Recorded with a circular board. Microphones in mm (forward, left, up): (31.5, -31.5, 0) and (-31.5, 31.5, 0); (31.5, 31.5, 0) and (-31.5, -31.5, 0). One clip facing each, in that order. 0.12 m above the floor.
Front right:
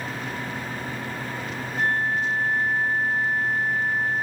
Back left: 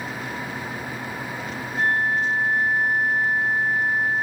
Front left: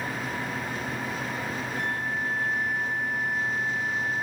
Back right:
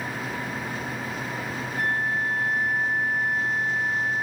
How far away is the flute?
About 5.5 m.